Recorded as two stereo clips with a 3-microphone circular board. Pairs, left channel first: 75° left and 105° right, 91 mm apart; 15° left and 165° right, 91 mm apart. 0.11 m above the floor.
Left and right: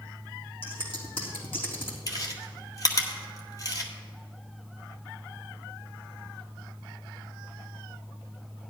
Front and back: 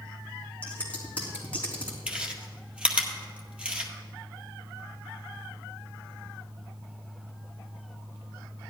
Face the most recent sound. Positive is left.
turn(degrees=120)